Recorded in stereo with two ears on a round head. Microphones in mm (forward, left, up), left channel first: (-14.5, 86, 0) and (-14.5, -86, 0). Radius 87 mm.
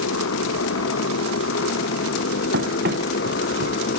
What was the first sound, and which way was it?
A motorcycle, 75° left (ahead or behind).